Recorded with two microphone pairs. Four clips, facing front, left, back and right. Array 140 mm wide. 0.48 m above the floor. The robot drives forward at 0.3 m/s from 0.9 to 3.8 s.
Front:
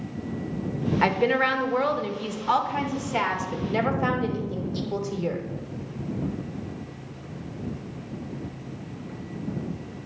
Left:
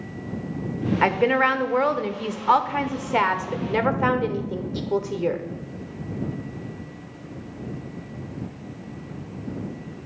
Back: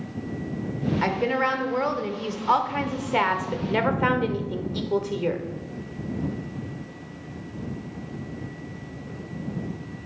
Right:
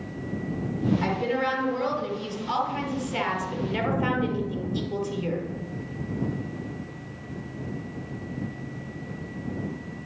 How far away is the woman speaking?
About 1.1 m.